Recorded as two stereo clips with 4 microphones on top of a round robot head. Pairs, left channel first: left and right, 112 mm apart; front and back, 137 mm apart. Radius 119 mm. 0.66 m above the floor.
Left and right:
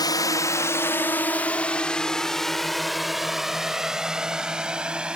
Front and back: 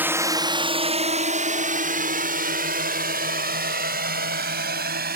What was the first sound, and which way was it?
A drone, 115° left.